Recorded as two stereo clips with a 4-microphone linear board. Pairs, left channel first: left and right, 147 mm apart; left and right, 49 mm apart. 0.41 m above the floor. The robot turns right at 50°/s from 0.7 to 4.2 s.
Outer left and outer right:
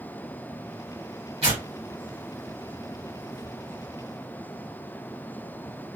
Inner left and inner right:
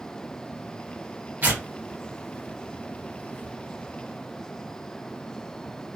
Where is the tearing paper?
45° right (ahead or behind), 1.6 m; by 3.5 s 50° left (ahead or behind), 1.6 m.